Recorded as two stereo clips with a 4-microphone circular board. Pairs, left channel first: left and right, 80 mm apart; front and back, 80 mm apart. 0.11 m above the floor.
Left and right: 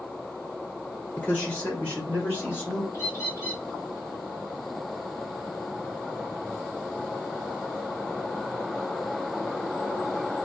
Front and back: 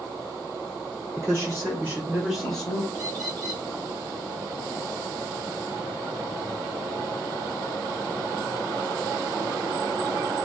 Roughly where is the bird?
Behind left.